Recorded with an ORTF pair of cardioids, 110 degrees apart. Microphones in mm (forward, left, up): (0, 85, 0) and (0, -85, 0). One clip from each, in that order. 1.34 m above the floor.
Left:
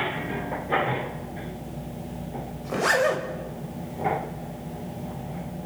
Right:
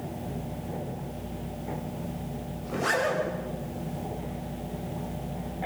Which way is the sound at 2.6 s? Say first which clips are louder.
Left 5 dB; 35° left.